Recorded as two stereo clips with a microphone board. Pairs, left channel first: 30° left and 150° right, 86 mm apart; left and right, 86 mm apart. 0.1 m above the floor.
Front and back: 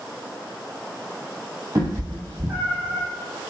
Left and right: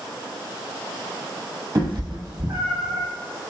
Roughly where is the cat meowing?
Right.